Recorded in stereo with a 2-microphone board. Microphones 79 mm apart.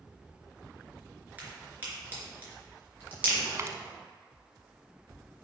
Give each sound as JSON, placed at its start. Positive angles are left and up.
{"t": 1.4, "sound": "a crack", "side_deg": -20, "distance_m": 3.0}
{"t": 3.5, "sound": "a dropped coin", "side_deg": -35, "distance_m": 0.8}